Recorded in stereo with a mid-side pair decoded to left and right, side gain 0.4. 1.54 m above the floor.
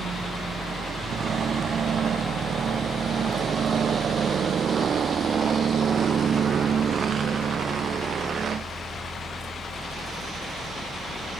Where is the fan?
60° right, 2.5 m.